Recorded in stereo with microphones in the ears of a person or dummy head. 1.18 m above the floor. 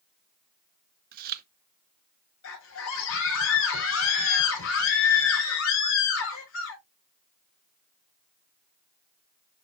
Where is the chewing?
45° right (ahead or behind), 0.8 m.